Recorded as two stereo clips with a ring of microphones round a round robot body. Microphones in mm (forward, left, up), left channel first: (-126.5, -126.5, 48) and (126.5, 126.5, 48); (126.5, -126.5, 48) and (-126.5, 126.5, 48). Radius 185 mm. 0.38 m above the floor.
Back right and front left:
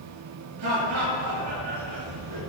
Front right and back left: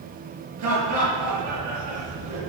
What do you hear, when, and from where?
0.6 s laughter: 90° left, 7 m